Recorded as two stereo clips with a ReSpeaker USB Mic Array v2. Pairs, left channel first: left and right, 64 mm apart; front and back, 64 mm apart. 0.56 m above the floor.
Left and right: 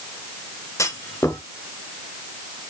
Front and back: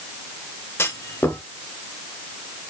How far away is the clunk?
About 1.0 m.